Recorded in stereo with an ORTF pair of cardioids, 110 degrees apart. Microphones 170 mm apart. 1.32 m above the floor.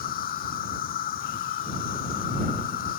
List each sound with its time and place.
0.0 s an insect: 65° left